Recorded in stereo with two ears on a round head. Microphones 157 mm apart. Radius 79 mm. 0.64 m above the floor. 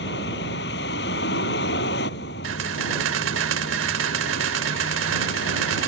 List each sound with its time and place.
0.0 s a vehicle: 60° left (ahead or behind)
2.4 s a camera shutter: 80° right